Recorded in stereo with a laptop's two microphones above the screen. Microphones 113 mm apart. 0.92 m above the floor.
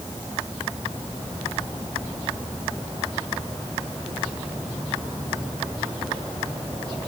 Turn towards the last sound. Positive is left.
No sound to turn to.